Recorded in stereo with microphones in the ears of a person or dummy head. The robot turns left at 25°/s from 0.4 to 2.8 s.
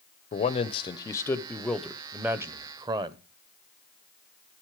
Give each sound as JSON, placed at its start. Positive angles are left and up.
{"t": 0.3, "sound": "a man speaking", "azimuth_deg": 35, "distance_m": 0.9}